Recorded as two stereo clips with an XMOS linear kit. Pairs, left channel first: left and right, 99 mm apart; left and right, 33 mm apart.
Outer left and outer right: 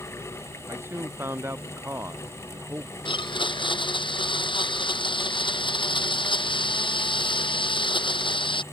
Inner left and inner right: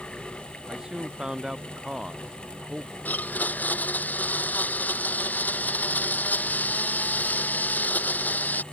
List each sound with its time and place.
0.7 s a man speaking: 25° right (ahead or behind)
3.0 s a blender: 55° left (ahead or behind)